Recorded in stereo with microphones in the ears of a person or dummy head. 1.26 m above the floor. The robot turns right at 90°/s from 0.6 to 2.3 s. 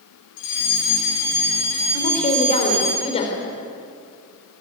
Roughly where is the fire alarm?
Ahead left.